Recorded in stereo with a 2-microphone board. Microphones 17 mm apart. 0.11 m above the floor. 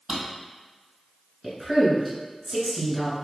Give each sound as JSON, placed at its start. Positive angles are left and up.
{"t": 0.1, "sound": "a drawer", "side_deg": -70, "distance_m": 1.7}
{"t": 1.4, "sound": "a woman speaking", "side_deg": -5, "distance_m": 1.5}